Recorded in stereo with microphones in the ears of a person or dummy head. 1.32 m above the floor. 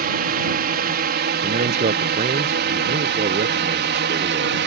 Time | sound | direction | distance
0.0 | a drone | 40° right (ahead or behind) | ?
1.4 | a man speaking | 40° right (ahead or behind) | ?